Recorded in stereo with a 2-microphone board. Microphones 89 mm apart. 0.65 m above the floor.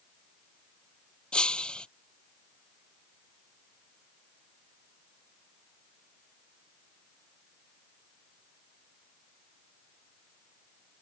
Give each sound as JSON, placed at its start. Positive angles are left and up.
{"t": 1.3, "sound": "breaking glass", "side_deg": 10}